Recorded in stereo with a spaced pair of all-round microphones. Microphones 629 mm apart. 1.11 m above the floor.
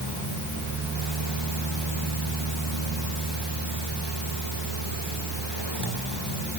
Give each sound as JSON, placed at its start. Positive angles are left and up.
{"t": 0.0, "sound": "a fan", "side_deg": -45, "distance_m": 6.0}